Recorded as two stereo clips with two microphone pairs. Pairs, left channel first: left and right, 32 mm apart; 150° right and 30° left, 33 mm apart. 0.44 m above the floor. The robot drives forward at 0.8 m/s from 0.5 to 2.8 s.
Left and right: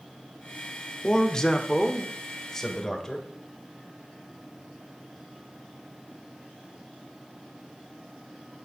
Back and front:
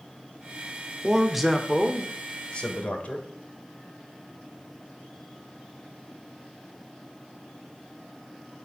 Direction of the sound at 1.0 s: 60° left.